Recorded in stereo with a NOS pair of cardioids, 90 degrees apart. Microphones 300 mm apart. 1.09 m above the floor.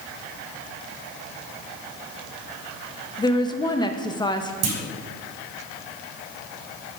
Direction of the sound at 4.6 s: 60° right.